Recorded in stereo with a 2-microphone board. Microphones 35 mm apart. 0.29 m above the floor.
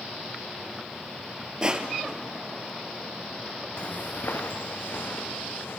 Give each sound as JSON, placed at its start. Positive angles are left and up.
{"t": 1.6, "sound": "crushing", "side_deg": -25, "distance_m": 1.2}
{"t": 3.8, "sound": "footsteps", "side_deg": 30, "distance_m": 0.8}